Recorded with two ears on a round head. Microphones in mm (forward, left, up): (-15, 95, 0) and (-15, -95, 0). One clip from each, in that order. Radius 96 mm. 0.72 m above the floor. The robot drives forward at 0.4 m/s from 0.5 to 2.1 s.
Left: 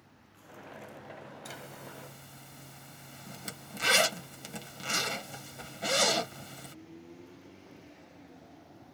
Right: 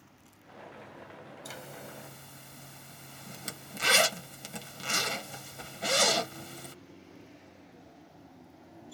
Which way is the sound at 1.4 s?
5° right (ahead or behind).